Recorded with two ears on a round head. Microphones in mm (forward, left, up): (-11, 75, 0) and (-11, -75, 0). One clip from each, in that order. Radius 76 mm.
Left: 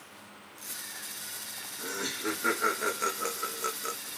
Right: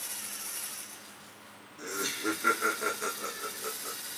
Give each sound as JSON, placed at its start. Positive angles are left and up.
{"t": 1.8, "sound": "laughter", "side_deg": -20, "distance_m": 1.0}